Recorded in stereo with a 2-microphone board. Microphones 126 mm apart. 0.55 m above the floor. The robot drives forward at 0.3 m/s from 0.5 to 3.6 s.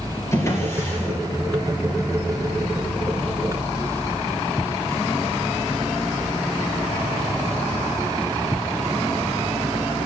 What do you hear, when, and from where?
0.3 s a drawer: 25° left (ahead or behind), 5.5 m